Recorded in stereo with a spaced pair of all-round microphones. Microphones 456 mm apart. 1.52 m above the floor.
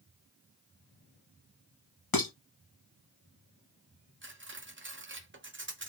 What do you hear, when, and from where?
2.1 s dishes clattering: 50° left (ahead or behind), 0.9 m
4.2 s cutlery clinking: 30° right (ahead or behind), 0.6 m